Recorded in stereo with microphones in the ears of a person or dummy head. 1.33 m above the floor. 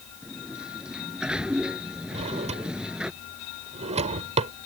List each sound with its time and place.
0.2 s a sliding door: centre (ahead or behind)
2.1 s a drawer: 30° right (ahead or behind)